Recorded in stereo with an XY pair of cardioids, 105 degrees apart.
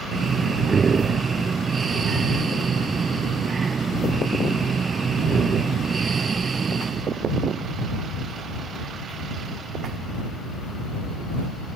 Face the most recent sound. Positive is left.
turn(degrees=-35)